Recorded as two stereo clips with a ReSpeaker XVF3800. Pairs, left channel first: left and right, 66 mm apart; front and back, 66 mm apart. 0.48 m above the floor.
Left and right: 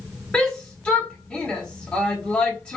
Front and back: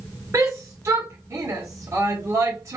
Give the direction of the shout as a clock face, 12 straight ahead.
7 o'clock.